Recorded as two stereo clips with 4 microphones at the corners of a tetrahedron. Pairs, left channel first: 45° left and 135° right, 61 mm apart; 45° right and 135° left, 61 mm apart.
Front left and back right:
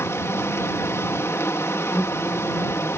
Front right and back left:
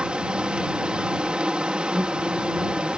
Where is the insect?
65° left.